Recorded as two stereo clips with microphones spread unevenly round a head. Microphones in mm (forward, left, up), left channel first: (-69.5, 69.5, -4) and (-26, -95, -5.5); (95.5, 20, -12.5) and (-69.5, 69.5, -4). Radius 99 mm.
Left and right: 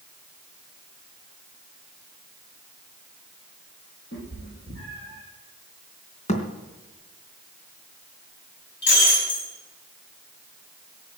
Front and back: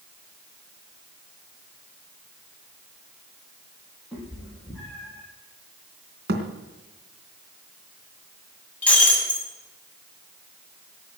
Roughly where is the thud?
Behind left.